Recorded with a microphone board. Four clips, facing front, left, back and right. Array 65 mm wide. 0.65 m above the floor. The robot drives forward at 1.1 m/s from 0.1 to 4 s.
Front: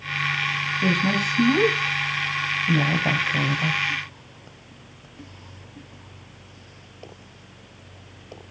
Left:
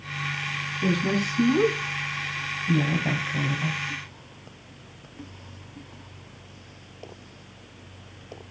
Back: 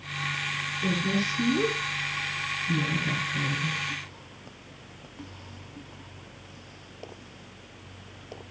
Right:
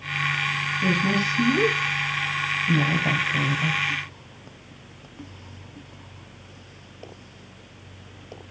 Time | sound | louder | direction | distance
0.8 | a woman speaking | right 1 dB, front 5 dB | 5° right | 5 m